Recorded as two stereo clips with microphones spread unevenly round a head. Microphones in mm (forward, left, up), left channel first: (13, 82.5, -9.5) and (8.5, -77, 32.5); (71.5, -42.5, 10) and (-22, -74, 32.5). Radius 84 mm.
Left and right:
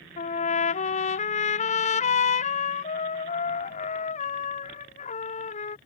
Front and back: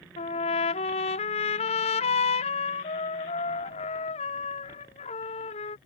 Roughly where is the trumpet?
Ahead left.